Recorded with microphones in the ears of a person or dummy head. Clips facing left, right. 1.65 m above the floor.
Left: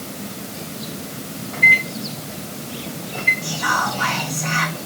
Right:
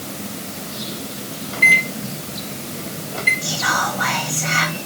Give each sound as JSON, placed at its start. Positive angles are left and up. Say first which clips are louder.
{"t": 1.5, "sound": "a microwave", "louder": "right 1 dB", "side_deg": -40, "distance_m": 1.6}
{"t": 3.4, "sound": "whispering", "louder": "even", "side_deg": -55, "distance_m": 0.8}